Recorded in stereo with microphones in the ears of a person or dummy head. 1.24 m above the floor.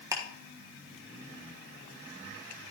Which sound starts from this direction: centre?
Ticking, at 0.1 s.